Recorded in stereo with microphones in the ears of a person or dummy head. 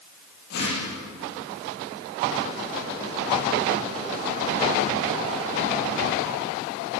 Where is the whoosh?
60° left (ahead or behind), 7 m.